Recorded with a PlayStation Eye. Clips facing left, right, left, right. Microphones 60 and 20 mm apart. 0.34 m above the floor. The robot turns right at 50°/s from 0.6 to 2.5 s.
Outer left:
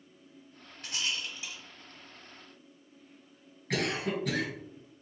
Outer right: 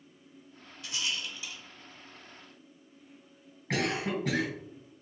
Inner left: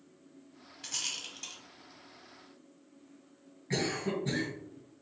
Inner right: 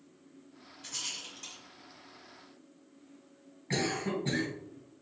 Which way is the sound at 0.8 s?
45° left (ahead or behind).